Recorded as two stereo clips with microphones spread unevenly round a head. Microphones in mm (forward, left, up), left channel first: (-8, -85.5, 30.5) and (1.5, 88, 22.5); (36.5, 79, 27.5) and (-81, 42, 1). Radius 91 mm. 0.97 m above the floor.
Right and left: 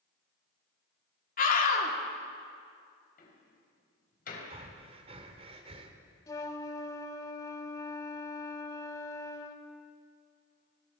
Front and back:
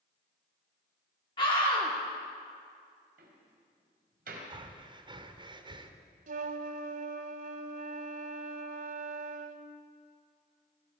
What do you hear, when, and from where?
1.4 s a scream: 50° right, 3 m
3.2 s a door slam: 135° right, 4 m
4.5 s breathing: 145° left, 2.0 m
6.3 s a flute: 160° right, 1.3 m